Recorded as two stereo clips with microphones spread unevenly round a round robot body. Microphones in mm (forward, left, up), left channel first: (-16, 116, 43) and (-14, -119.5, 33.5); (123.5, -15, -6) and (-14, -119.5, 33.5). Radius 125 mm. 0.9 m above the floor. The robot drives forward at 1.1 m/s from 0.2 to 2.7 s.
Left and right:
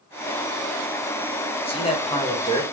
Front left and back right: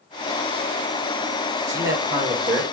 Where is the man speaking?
155° left, 2 m; by 2.7 s 165° left, 3 m.